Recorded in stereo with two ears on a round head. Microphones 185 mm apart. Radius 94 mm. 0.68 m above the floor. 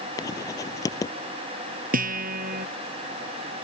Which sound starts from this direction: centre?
Writing, at 0.2 s.